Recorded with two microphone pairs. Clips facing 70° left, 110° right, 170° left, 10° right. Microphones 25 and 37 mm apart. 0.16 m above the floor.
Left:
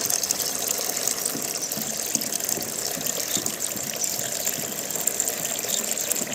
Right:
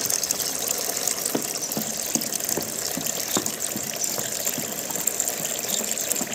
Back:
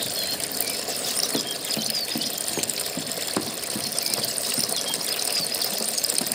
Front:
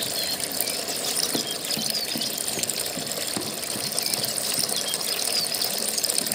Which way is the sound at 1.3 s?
110° right.